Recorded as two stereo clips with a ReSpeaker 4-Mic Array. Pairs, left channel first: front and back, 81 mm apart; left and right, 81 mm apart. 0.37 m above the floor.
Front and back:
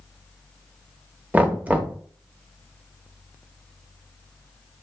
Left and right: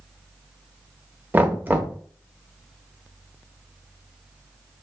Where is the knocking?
130° right, 0.7 m.